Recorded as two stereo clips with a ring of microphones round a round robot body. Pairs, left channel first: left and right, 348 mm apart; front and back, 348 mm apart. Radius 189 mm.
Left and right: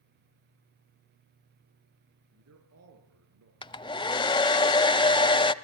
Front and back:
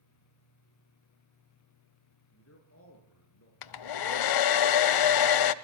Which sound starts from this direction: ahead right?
A man speaking, at 2.3 s.